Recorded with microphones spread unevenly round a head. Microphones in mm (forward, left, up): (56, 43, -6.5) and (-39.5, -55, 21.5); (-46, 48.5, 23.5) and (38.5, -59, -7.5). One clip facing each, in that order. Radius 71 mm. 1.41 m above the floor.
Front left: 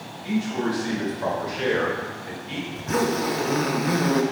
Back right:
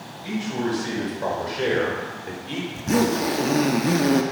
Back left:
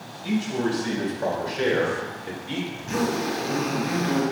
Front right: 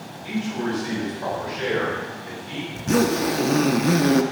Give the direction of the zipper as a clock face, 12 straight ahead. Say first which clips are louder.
Back right 3 dB, front right 7 dB; 3 o'clock.